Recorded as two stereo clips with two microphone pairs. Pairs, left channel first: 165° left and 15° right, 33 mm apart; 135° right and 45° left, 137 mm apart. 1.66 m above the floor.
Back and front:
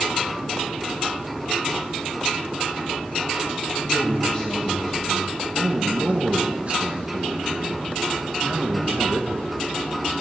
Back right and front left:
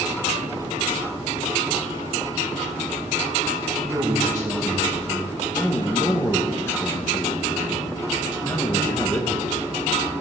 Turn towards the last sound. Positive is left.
turn(degrees=-60)